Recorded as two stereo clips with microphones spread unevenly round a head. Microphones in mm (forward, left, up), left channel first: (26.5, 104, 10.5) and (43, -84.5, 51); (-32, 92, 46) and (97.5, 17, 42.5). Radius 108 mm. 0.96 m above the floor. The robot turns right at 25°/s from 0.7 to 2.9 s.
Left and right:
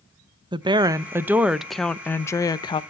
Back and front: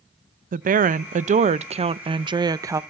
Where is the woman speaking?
15° right, 0.5 m; by 2.8 s 40° left, 0.5 m.